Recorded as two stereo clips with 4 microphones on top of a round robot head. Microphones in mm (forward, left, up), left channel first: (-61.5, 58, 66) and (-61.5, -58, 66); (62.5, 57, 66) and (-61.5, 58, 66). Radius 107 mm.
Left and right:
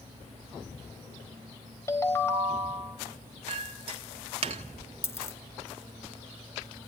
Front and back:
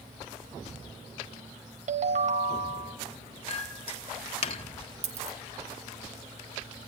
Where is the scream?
I don't hear a scream.